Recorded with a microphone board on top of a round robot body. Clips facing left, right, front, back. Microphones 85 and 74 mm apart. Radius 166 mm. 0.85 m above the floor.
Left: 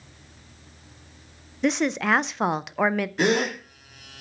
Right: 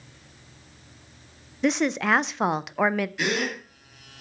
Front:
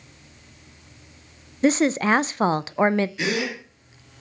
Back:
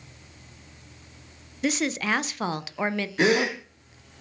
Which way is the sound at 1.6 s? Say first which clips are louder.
Even, front 7 dB; straight ahead.